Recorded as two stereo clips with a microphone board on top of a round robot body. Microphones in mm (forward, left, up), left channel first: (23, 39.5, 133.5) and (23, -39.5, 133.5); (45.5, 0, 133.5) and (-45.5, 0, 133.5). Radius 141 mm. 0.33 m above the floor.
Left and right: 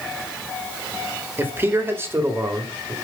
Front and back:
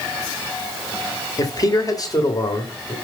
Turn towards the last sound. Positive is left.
turn(degrees=-40)